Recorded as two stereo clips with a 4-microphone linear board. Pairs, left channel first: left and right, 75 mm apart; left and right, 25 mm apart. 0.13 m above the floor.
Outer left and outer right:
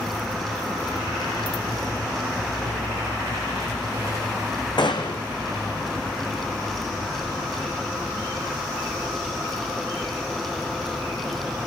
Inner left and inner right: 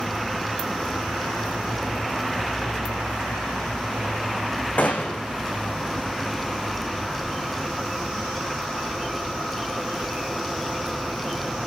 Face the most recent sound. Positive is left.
turn(degrees=75)  # may be behind; listen again after turning